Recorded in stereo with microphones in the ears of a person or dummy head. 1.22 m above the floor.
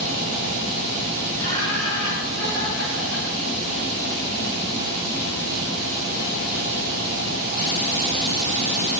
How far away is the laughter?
About 6.5 m.